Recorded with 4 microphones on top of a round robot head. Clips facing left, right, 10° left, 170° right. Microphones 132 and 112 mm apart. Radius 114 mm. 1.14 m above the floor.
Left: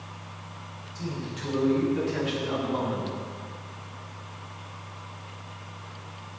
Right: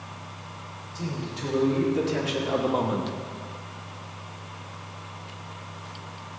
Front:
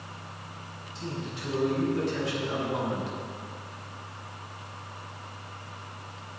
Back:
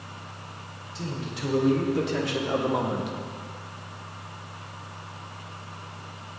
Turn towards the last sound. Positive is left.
turn(degrees=-90)